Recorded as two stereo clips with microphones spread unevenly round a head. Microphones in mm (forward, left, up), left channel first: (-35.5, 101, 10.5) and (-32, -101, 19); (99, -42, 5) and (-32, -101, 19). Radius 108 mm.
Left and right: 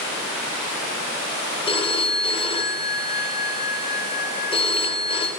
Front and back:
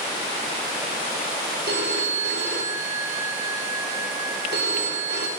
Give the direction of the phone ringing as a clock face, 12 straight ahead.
7 o'clock.